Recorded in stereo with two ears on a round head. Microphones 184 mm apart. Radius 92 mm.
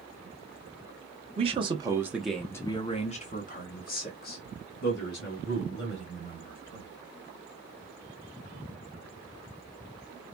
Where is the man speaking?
30° right (ahead or behind), 0.9 m; by 6.9 s 55° left (ahead or behind), 3 m.